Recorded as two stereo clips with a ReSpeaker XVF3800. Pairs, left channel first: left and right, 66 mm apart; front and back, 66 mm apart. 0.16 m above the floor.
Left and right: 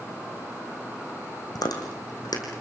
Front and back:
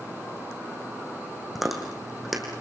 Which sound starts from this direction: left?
Chewing, at 1.6 s.